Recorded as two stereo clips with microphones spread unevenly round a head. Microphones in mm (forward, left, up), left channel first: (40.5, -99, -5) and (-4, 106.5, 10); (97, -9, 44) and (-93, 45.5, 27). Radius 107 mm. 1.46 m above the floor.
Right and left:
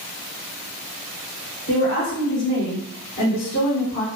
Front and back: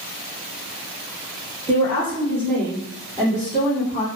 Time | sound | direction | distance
1.7 | a woman speaking | 105° right | 1.7 m